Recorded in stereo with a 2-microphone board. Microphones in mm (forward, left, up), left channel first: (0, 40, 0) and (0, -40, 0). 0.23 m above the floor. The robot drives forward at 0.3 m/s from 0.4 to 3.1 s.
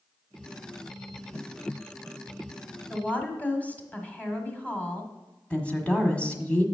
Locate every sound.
2.9 s a woman speaking: 20° left (ahead or behind), 1.3 m
5.5 s a woman speaking: 15° left (ahead or behind), 1.4 m